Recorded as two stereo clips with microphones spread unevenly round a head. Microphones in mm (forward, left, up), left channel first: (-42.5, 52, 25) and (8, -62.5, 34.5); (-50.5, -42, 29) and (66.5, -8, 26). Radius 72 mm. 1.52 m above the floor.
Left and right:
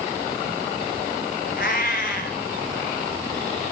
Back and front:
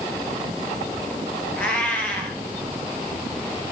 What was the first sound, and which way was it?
A cat meowing, 115° left.